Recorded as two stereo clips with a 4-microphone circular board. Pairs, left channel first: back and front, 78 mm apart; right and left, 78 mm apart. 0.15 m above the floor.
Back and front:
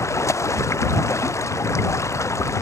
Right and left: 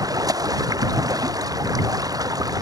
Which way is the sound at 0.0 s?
130° left.